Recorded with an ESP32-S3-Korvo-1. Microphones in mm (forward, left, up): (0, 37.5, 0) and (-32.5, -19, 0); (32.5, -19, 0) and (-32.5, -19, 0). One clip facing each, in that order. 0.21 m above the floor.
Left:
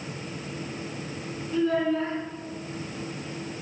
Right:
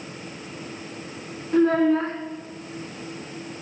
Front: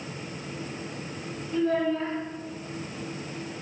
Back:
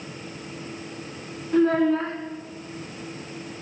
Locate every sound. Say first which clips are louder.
1.5 s a child speaking: right 6 dB, back 6 dB; 155° right, 1.1 m